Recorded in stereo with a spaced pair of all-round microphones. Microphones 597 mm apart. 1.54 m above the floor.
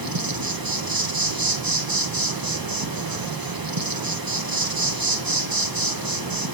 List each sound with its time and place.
0.0 s an insect: 35° right (ahead or behind), 0.8 m